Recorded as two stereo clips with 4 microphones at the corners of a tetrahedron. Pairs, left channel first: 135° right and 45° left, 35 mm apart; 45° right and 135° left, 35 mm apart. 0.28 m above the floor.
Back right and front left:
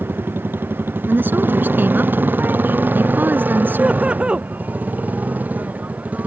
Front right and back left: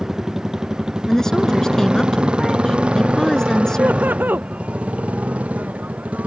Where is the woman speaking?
30° left.